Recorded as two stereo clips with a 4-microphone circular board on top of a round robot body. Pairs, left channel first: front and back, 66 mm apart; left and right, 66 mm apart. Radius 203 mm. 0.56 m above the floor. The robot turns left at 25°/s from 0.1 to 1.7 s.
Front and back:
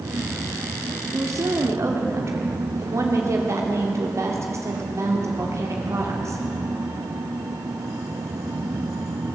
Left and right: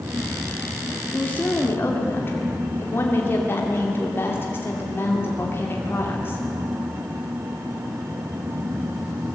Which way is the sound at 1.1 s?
160° left.